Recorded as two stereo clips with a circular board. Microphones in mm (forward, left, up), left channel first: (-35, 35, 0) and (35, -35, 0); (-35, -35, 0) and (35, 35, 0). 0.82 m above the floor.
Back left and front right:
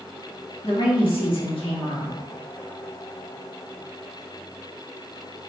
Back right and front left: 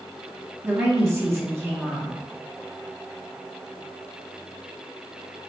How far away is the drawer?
No drawer in this recording.